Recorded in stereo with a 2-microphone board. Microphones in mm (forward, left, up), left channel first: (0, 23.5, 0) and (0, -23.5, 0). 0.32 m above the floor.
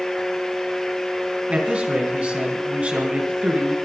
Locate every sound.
1.5 s a man speaking: 30° right (ahead or behind), 4 m